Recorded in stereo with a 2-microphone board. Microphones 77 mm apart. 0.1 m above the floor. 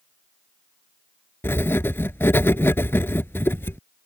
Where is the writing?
30° left (ahead or behind).